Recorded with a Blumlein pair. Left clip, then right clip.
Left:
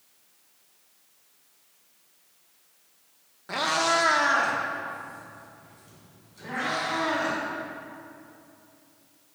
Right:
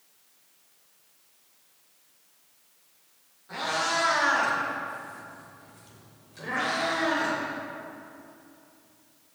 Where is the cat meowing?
35° left, 1.1 m; by 7.3 s 50° right, 3.5 m.